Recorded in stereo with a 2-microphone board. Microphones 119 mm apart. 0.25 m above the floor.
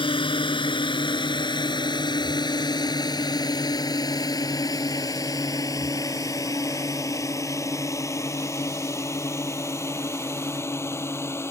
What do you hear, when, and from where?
0.0 s a drone: 45° left (ahead or behind); by 11.5 s 20° left (ahead or behind)